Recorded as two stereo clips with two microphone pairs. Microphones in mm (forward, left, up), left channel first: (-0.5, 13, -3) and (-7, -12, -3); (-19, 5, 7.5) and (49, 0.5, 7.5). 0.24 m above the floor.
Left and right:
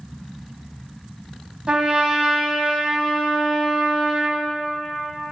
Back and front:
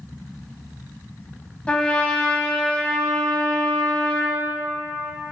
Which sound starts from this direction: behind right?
A trumpet, at 1.7 s.